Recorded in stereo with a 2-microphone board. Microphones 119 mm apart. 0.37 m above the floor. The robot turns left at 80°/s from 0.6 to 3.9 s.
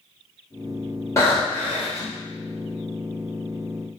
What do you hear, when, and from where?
1.2 s breathing: 25° left (ahead or behind), 1.0 m; by 2.1 s 5° right (ahead or behind), 1.0 m